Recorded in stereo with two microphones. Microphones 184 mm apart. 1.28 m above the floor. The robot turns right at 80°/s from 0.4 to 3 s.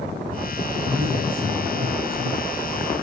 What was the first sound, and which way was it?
A man speaking, 135° left.